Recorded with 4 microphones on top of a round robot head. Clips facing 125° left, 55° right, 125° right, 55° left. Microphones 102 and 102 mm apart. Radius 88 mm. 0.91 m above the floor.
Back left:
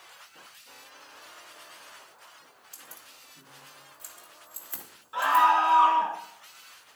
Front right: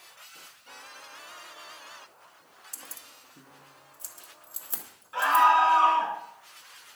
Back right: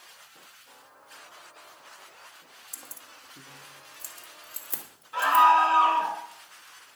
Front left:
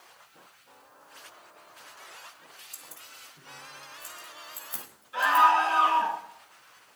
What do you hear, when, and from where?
2.7 s keys jangling: 105° right, 1.0 m; by 5.5 s 125° right, 2 m
5.1 s a scream: 165° right, 8 m